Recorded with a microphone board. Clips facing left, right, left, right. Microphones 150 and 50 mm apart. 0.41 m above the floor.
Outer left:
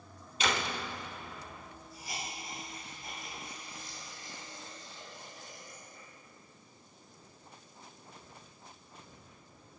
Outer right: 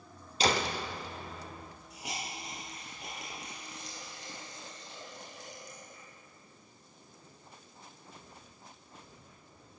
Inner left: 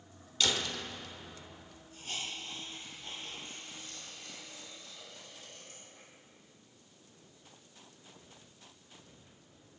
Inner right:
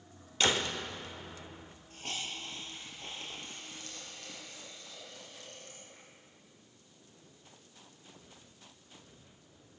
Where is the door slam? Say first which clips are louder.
Outer right 4 dB, inner right 3 dB; 35° right (ahead or behind), 0.7 m.